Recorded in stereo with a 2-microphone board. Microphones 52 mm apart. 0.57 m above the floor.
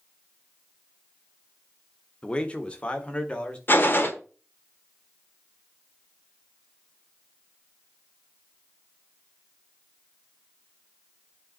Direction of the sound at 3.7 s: 40° left (ahead or behind).